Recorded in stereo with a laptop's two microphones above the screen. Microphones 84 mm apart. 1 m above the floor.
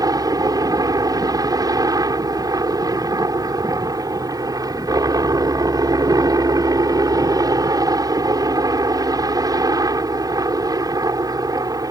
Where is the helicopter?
45° right (ahead or behind).